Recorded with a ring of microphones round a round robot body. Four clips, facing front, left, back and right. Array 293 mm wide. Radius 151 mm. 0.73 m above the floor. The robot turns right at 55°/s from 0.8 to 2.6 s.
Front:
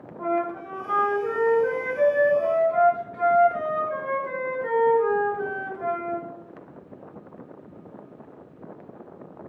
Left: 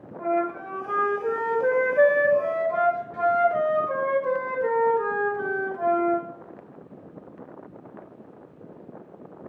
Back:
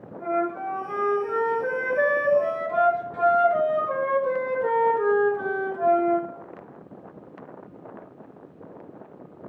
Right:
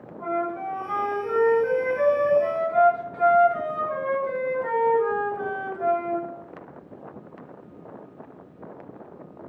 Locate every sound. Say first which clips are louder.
0.2 s a flute: left 2 dB, even; 45° left, 1.7 m; by 6.2 s 145° left, 1.7 m